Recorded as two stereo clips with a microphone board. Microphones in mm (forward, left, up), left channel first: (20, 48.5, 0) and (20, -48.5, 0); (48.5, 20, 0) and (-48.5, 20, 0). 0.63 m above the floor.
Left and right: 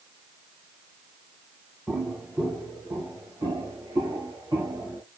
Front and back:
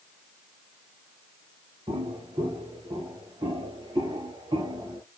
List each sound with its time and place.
1.9 s footsteps: 165° right, 2.5 m; by 5.0 s 140° right, 6 m